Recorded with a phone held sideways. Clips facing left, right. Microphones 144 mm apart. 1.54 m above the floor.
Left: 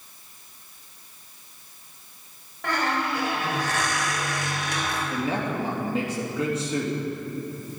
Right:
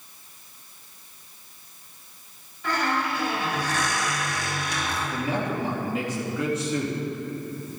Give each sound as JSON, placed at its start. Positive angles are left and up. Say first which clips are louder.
{"t": 2.6, "sound": "a squeak", "louder": "even", "side_deg": 70, "distance_m": 3.5}
{"t": 5.1, "sound": "a man speaking", "louder": "even", "side_deg": 30, "distance_m": 3.0}